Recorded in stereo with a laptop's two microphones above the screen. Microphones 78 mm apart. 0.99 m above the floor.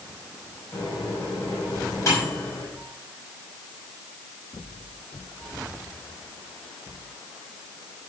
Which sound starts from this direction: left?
A microwave, at 0.7 s.